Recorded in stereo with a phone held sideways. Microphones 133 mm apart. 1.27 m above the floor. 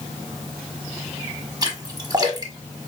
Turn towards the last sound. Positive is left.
turn(degrees=-30)  # may be behind; listen again after turning